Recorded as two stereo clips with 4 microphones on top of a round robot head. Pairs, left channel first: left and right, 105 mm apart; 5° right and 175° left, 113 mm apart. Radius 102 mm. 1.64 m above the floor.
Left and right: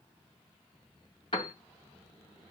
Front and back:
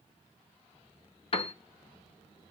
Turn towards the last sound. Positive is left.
turn(degrees=30)